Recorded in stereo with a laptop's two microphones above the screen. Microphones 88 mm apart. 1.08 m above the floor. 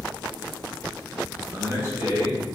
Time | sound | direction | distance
1.5 | a man speaking | 30° right (ahead or behind) | 1.7 m